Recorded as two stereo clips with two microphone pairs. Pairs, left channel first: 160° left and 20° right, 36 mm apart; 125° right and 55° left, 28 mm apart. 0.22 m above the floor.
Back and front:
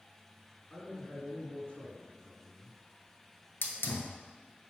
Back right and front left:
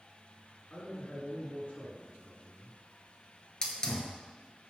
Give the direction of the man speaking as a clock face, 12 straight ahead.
5 o'clock.